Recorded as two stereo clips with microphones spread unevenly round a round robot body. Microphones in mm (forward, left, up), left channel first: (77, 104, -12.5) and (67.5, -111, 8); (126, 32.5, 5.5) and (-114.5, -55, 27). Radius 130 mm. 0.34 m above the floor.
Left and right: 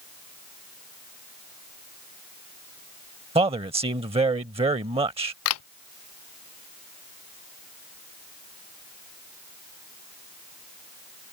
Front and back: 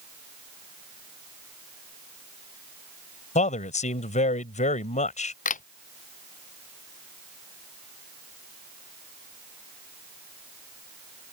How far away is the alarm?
No alarm in this recording.